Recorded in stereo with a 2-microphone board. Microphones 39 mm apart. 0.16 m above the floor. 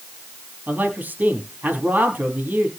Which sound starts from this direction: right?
A man speaking, at 0.7 s.